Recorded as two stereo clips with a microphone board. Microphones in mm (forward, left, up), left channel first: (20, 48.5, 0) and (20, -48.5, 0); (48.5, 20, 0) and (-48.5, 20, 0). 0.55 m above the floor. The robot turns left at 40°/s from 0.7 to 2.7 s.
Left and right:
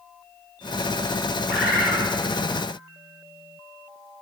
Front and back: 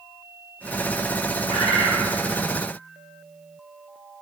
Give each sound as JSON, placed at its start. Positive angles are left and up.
{"t": 1.5, "sound": "a bird", "azimuth_deg": 0, "distance_m": 3.0}